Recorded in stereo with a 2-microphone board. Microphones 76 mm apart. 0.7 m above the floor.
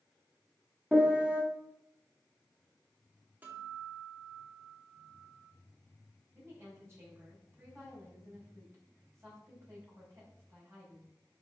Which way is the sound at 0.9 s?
20° right (ahead or behind).